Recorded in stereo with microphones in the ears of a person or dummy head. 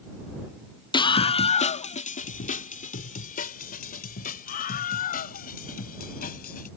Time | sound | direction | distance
0.9 | a scream | 20° left (ahead or behind) | ?